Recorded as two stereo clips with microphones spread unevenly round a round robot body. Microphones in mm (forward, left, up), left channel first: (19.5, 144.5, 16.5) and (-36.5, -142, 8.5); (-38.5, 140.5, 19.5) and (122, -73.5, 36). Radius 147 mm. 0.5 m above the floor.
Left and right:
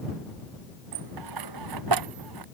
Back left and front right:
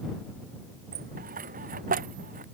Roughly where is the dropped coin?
Behind right.